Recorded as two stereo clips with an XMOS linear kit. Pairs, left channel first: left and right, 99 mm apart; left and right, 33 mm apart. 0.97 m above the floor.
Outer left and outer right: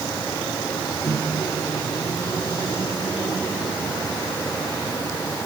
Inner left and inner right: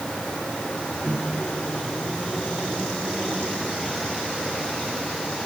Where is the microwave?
25° left (ahead or behind), 2.5 m.